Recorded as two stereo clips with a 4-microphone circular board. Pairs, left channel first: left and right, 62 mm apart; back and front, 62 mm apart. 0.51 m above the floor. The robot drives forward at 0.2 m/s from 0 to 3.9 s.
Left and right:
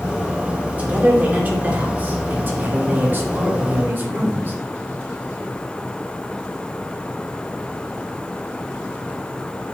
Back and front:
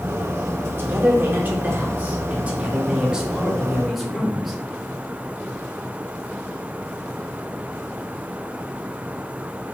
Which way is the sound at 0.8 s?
35° right.